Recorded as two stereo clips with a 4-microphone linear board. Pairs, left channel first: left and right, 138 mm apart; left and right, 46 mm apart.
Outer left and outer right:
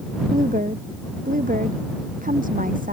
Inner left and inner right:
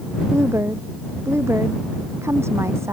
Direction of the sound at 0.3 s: 70° right (ahead or behind).